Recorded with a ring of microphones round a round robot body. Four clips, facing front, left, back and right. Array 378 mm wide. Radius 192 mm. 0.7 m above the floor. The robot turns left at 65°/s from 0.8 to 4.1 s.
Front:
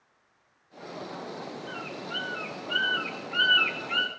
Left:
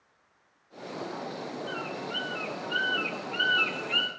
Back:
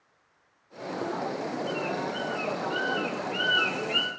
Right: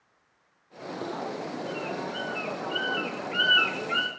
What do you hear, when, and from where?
1.7 s a bird: 75° left, 1.9 m; by 4.1 s 85° right, 1.9 m